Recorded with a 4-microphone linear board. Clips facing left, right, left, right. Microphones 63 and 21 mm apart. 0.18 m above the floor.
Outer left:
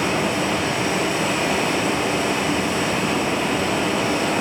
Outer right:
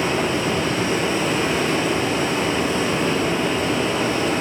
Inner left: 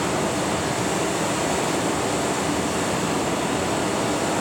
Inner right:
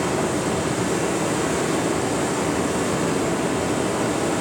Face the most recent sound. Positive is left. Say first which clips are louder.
# even, inner right 1 dB
turn(degrees=75)  # may be behind; listen again after turning